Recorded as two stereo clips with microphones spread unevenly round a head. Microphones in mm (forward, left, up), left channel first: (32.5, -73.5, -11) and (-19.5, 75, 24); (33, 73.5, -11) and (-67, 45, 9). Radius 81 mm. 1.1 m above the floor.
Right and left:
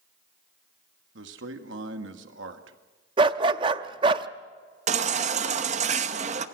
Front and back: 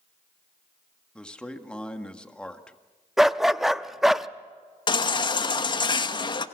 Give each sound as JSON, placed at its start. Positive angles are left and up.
{"t": 1.1, "sound": "a man speaking", "azimuth_deg": 95, "distance_m": 1.8}
{"t": 3.2, "sound": "a dog barking", "azimuth_deg": 125, "distance_m": 0.6}
{"t": 4.9, "sound": "a baby crying", "azimuth_deg": 60, "distance_m": 1.0}